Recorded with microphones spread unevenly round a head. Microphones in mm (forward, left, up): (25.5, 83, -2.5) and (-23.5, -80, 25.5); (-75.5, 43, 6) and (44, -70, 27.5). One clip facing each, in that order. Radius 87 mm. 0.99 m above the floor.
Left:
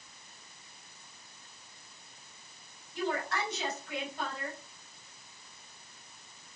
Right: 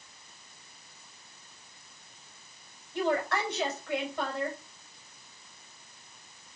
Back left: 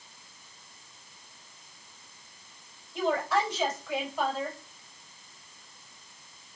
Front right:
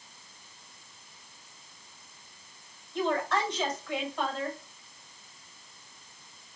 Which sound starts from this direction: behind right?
A woman speaking, at 2.9 s.